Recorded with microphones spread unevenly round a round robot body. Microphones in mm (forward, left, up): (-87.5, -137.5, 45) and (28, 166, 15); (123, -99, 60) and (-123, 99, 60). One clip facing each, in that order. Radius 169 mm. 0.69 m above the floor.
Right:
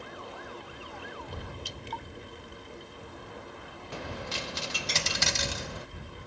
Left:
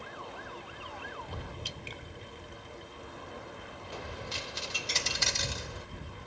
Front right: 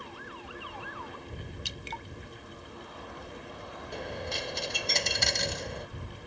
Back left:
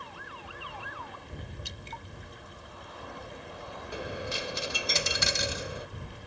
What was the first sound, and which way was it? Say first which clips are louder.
Dripping: right 3 dB, front right 3 dB; 15° right.